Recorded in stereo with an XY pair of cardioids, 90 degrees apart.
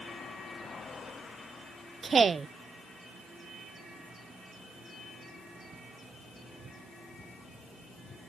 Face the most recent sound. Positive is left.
turn(degrees=-40)